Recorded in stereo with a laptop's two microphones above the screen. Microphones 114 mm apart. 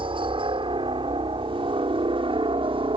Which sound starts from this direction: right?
A helicopter, at 0.0 s.